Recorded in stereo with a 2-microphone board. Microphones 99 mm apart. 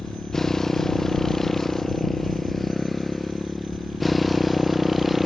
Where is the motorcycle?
5° left (ahead or behind); by 5.3 s centre (ahead or behind).